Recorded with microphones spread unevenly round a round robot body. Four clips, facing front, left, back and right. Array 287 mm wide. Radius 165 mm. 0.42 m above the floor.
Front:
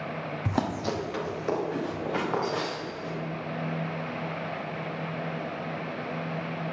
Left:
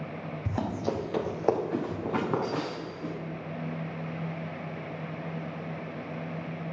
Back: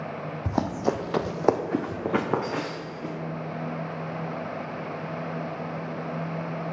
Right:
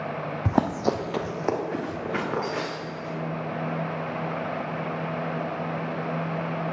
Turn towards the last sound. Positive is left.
turn(degrees=145)